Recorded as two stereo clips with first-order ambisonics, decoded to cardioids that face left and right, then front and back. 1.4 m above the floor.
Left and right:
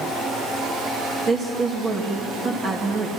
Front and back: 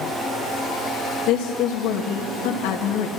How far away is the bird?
I don't hear a bird.